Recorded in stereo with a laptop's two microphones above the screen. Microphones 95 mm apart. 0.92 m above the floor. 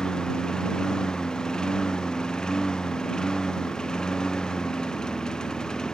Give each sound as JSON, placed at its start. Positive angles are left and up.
{"t": 0.0, "sound": "a lawn mower", "side_deg": 5}